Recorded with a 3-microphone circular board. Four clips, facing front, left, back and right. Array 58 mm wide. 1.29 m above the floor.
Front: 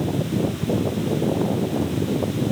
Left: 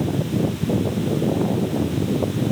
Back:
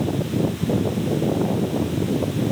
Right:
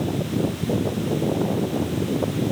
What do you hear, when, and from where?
Only background noise.